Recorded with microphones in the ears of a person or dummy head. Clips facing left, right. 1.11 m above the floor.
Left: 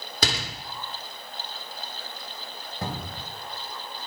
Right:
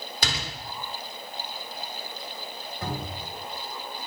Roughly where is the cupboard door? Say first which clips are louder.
Even; left.